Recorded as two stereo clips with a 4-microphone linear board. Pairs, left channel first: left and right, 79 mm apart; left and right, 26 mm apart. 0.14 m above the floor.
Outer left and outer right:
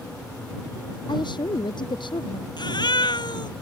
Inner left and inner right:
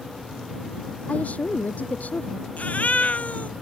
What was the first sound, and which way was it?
A woman speaking, 70° left (ahead or behind).